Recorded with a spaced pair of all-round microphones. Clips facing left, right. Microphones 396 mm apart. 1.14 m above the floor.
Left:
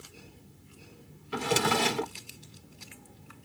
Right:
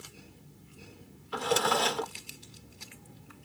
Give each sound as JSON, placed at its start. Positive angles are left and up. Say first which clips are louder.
{"t": 1.3, "sound": "a drawer", "louder": "left 1 dB", "side_deg": 40}